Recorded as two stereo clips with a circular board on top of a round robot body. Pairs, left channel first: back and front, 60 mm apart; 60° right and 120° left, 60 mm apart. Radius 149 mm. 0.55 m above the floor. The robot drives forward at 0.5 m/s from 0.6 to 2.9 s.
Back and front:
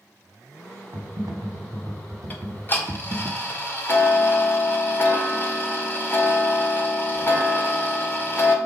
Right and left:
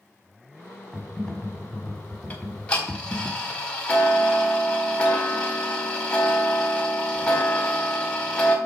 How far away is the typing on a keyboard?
About 1.8 m.